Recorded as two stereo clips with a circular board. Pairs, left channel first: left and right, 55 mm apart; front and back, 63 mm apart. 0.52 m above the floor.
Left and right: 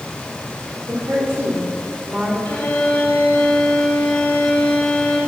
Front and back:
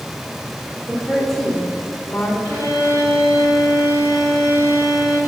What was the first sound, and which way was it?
A woman speaking, 95° right.